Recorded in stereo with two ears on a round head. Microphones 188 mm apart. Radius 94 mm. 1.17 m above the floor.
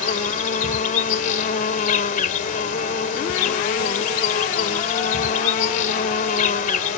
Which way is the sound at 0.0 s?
40° left (ahead or behind).